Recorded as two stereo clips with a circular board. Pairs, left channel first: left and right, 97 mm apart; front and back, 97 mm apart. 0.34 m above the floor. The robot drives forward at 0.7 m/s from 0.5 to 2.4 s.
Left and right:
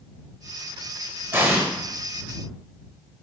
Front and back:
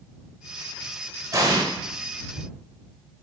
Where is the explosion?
145° right, 0.6 m; by 1.6 s 155° right, 0.8 m.